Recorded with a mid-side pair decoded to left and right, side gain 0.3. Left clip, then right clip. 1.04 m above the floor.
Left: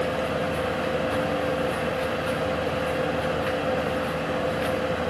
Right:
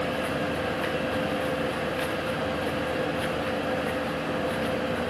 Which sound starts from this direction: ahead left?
A fan, at 0.0 s.